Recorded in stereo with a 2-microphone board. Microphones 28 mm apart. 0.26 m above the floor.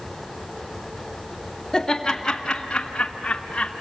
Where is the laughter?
5° left (ahead or behind), 1.7 m; by 3.7 s 30° left (ahead or behind), 2 m.